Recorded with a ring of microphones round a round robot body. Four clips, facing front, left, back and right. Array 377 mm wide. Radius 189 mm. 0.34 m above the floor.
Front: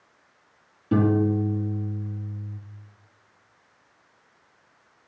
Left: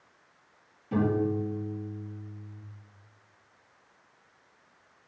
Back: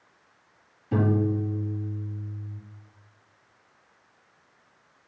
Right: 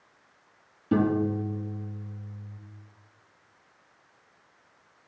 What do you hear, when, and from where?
0.9 s a piano: 45° right, 2.5 m